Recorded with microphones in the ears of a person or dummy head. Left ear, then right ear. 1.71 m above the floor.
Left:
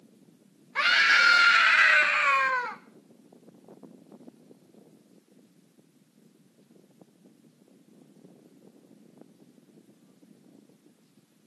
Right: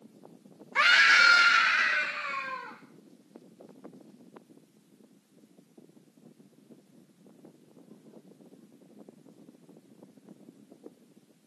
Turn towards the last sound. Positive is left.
turn(degrees=70)  # may be behind; listen again after turning